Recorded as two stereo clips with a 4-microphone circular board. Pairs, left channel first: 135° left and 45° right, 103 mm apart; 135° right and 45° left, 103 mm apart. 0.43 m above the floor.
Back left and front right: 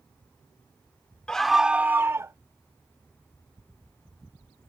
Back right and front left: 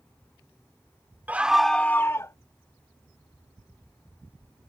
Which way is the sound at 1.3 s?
70° left.